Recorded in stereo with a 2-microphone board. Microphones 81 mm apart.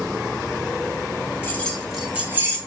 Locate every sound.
1.4 s keys jangling: 25° left (ahead or behind), 0.7 m; by 2.6 s 35° right (ahead or behind), 0.8 m